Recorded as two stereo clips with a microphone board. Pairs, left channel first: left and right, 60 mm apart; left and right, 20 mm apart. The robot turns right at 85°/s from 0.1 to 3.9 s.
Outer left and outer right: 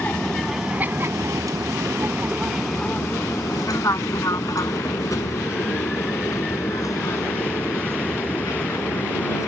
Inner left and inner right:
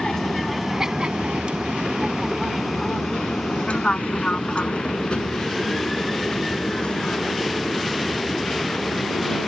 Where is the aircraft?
25° left (ahead or behind); by 9.5 s 70° left (ahead or behind).